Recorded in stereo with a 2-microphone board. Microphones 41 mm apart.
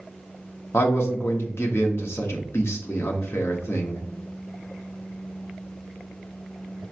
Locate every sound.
0.7 s a man speaking: 70° left (ahead or behind), 1.0 m